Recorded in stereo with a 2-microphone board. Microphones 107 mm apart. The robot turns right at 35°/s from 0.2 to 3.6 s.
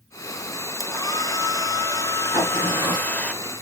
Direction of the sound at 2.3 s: 35° right (ahead or behind).